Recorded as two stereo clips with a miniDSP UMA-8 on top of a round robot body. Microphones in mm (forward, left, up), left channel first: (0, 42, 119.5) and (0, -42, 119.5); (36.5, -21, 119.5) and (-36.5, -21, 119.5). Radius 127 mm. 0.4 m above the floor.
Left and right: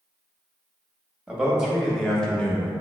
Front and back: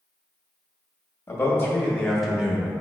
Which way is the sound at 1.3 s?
15° right.